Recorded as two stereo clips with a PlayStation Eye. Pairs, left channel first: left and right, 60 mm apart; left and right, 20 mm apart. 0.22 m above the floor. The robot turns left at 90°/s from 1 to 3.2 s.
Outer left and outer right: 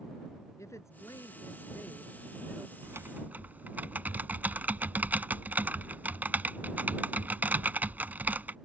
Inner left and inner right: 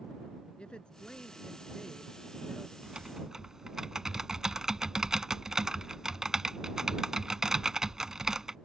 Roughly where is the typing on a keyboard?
Right.